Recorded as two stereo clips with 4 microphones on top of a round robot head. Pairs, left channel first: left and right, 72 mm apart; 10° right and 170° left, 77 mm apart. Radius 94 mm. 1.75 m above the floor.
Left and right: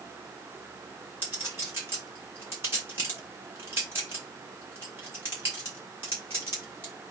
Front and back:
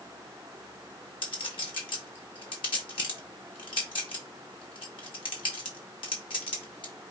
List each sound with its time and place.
1.2 s a clink: 20° right, 1.1 m